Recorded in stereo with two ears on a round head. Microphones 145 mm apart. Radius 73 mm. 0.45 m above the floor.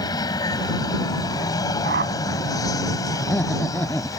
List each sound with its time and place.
0.0 s an aircraft: 25° left (ahead or behind); by 4.2 s 20° left (ahead or behind)
1.8 s a whoosh: 70° right (ahead or behind)
3.2 s laughter: 10° left (ahead or behind)